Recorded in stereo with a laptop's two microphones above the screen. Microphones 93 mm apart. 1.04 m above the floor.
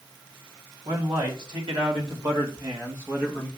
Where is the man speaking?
70° right (ahead or behind), 3 m; by 3.5 s 10° right (ahead or behind), 1.1 m.